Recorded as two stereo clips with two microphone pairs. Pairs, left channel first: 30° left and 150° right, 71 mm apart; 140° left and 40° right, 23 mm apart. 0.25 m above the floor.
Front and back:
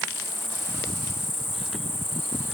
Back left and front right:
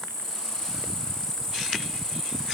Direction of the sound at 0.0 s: 80° left.